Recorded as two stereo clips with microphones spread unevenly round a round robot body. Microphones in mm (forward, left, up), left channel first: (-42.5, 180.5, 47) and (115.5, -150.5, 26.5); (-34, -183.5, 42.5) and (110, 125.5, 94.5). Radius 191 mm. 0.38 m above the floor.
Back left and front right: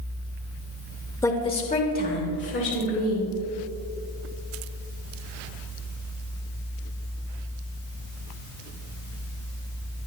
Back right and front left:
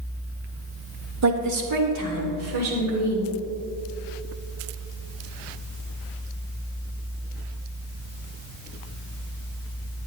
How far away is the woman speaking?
About 1.5 m.